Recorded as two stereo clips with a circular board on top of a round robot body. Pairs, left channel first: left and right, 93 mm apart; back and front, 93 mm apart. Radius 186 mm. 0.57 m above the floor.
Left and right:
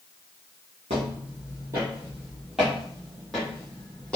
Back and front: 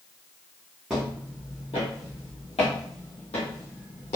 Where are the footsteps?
80° right, 0.7 m; by 4.2 s 170° left, 2.0 m.